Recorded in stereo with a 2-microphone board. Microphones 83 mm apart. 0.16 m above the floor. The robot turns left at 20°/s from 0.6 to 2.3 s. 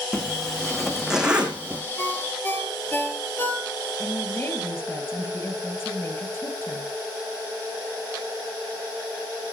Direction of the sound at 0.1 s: 5° left (ahead or behind).